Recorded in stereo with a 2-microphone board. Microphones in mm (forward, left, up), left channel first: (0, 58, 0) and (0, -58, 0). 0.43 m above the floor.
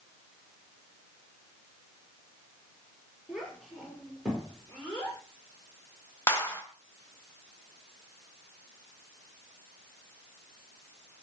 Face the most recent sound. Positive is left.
turn(degrees=20)  # may be behind; listen again after turning